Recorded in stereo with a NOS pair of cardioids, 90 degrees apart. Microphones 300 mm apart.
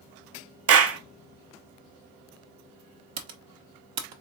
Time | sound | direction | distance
0.7 | a clap | 50° right | 0.7 m
3.2 | typing on a keyboard | 60° right | 1.0 m